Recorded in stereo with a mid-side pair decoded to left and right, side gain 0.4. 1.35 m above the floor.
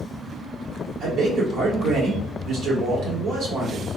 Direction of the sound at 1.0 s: 65° right.